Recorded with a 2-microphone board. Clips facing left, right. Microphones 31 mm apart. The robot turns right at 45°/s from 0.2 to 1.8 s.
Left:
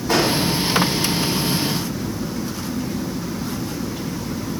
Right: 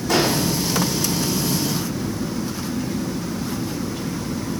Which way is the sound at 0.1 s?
30° left (ahead or behind).